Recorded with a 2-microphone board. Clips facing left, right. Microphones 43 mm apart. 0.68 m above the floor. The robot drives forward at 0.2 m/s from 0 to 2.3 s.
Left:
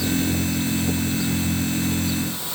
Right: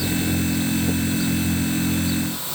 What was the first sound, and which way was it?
Only background noise.